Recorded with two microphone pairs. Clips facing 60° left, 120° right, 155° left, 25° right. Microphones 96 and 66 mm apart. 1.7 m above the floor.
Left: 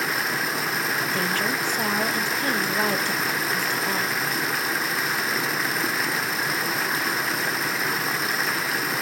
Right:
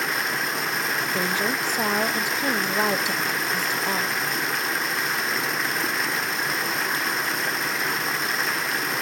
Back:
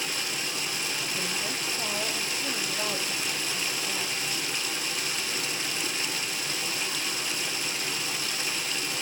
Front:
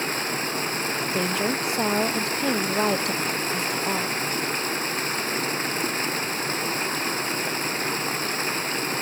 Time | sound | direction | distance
0.0 | running water | 30° right | 0.7 m
1.1 | a woman speaking | 45° right | 1.0 m